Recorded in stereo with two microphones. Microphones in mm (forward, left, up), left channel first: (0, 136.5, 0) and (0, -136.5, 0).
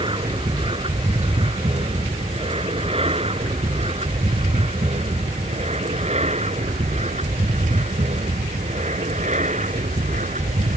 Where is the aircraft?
20° right (ahead or behind); by 10.8 s 30° right (ahead or behind).